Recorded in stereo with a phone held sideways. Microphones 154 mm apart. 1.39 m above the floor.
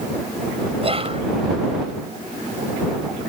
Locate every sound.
0.8 s whispering: 40° right (ahead or behind)